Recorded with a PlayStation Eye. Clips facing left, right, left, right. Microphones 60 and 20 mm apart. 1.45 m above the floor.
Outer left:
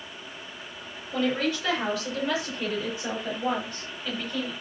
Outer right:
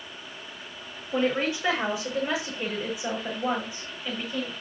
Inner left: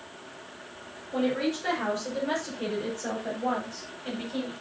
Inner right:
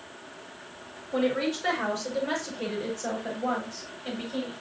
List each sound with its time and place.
1.1 s a woman speaking: 25° right (ahead or behind), 6 m; by 4.5 s 10° right (ahead or behind), 8.5 m